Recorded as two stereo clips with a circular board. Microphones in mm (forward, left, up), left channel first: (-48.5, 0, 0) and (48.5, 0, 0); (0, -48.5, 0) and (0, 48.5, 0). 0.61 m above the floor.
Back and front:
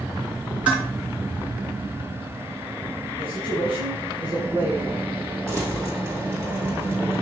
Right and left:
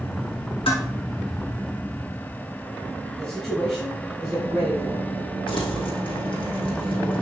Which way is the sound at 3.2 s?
10° right.